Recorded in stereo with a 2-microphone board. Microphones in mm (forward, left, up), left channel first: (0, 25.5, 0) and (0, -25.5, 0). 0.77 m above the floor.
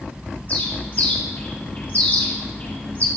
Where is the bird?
35° left (ahead or behind), 1.7 m.